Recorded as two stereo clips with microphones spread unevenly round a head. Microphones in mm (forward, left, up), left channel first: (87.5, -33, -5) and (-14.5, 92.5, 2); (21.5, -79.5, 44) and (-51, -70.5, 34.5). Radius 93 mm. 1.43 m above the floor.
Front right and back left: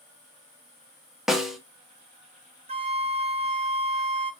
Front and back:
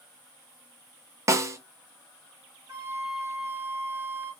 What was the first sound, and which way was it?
A snare drum, 145° right.